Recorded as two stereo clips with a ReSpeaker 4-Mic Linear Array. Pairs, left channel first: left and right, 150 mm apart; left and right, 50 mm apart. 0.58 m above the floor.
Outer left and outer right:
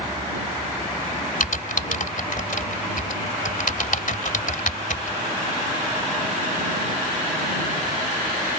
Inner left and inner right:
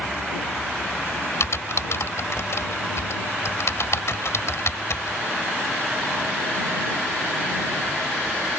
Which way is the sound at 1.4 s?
65° left (ahead or behind).